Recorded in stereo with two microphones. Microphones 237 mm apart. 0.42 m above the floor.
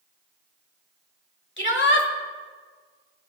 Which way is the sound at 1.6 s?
50° left (ahead or behind).